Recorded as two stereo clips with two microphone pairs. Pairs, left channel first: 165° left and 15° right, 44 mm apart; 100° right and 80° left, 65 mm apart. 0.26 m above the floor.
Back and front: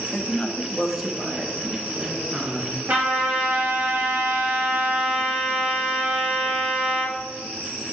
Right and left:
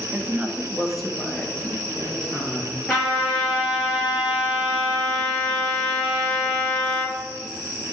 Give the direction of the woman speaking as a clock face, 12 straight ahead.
8 o'clock.